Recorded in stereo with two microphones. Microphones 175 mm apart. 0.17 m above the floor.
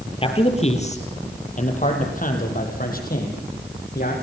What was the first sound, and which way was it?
A man speaking, 35° left (ahead or behind).